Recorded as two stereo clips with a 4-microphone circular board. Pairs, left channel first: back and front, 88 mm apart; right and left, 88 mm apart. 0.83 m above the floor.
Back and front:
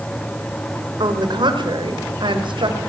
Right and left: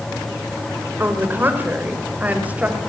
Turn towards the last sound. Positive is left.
turn(degrees=20)